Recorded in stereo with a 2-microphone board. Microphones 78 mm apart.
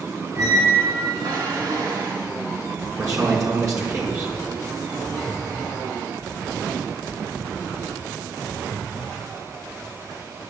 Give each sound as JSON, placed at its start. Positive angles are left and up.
{"t": 0.3, "sound": "a squeak", "side_deg": -65, "distance_m": 2.5}
{"t": 3.0, "sound": "a man speaking", "side_deg": -50, "distance_m": 4.5}